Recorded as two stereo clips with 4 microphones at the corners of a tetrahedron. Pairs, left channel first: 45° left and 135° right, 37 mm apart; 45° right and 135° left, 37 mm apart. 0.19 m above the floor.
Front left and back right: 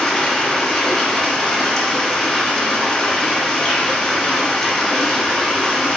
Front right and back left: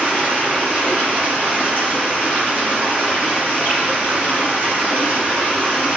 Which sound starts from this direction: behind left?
Running water, at 0.0 s.